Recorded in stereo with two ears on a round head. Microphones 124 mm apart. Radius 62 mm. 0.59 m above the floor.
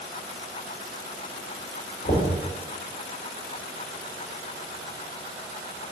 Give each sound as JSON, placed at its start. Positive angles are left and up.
{"t": 2.0, "sound": "knocking", "side_deg": 60, "distance_m": 1.2}